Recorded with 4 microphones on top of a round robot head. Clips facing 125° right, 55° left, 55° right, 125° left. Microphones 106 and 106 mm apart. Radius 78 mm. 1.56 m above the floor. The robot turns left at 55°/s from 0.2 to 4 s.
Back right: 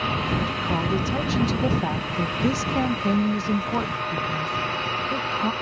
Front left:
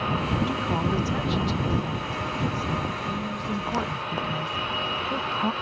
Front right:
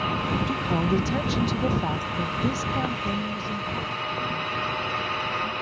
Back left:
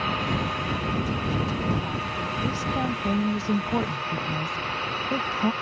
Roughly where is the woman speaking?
Ahead.